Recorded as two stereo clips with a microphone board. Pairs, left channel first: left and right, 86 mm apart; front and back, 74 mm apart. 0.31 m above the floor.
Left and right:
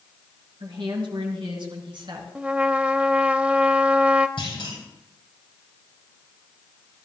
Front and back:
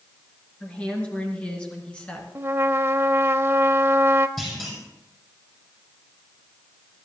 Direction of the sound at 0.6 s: 75° right.